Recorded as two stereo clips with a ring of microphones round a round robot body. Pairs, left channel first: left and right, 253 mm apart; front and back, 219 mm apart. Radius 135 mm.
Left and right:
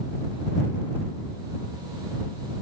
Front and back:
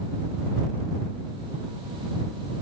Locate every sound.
Only background noise.